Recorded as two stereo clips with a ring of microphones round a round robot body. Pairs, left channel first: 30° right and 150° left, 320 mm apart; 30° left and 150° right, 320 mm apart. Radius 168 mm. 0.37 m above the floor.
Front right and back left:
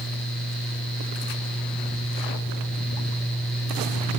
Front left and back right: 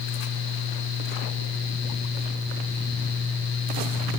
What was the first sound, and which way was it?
Only background noise.